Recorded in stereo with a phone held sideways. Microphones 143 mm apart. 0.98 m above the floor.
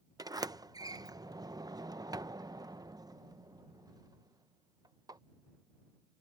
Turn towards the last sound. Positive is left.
turn(degrees=-25)  # may be behind; listen again after turning